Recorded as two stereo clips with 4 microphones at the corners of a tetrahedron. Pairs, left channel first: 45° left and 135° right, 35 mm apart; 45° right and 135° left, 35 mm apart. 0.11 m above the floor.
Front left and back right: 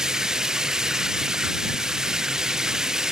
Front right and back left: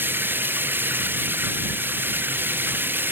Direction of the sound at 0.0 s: 155° left.